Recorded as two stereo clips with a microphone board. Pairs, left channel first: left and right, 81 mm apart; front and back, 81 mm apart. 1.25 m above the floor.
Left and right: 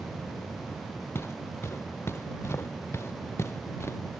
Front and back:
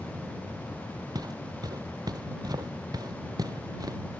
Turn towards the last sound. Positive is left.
turn(degrees=145)